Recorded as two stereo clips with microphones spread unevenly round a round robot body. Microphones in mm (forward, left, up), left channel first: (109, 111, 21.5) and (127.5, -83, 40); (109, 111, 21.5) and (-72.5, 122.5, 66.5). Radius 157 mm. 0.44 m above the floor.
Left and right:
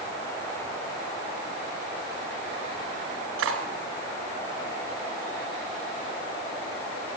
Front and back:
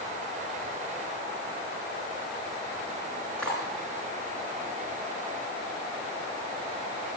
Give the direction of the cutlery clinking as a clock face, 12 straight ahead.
3 o'clock.